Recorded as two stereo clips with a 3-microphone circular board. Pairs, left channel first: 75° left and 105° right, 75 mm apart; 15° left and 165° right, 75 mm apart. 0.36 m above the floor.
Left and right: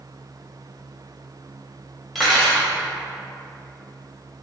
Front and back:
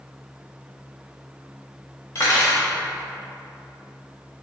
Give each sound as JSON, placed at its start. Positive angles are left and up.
{"t": 2.1, "sound": "cutlery clinking", "azimuth_deg": -15, "distance_m": 0.8}